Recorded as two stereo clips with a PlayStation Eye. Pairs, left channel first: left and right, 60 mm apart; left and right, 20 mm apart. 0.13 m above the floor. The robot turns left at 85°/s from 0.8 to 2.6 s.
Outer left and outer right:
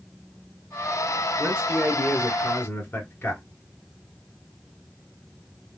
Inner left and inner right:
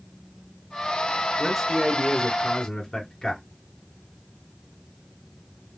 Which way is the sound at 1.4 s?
145° right.